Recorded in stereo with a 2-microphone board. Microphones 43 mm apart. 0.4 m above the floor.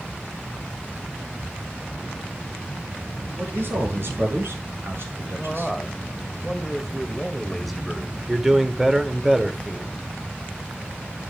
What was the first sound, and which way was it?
A man speaking, 60° right (ahead or behind).